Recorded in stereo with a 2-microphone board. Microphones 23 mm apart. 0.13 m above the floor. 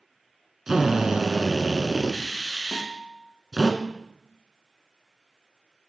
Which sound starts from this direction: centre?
A drill, at 0.7 s.